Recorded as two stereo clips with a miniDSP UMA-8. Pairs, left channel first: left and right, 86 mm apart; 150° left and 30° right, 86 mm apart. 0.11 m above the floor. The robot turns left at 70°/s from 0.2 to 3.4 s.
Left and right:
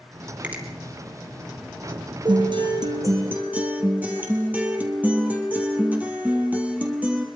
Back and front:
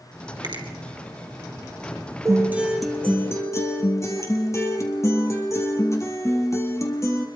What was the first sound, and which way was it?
A finger snap, 15° right.